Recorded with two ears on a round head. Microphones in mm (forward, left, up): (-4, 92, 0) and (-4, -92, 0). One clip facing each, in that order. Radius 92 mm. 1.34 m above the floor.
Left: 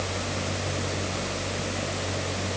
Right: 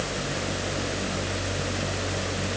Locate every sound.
Only background noise.